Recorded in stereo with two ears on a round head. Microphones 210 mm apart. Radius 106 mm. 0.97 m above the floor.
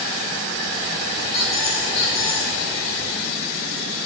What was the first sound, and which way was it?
A squeak, 55° left (ahead or behind).